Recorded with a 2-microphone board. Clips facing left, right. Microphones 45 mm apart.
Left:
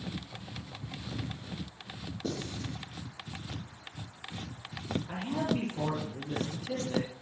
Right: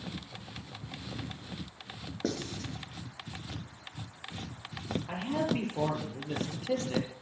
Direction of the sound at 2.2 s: 60° right (ahead or behind).